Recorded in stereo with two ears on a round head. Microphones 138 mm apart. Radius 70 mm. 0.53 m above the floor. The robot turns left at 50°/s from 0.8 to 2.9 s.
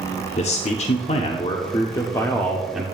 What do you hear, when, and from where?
0.4 s a man speaking: 95° left, 0.9 m; by 2.8 s 5° right, 0.9 m